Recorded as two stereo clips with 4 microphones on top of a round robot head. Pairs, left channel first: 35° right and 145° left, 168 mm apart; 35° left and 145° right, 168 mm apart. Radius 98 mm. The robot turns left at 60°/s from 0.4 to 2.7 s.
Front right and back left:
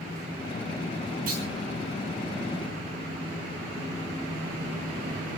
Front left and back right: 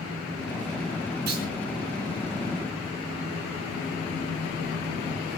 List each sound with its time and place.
1.3 s a clunk: 175° right, 5.5 m; by 1.5 s 175° left, 5.5 m